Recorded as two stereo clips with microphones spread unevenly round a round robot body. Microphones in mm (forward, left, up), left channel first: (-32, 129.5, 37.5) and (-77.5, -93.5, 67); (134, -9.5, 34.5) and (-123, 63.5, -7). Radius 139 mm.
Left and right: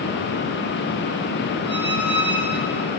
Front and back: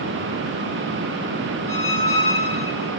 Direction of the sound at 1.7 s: 50° right.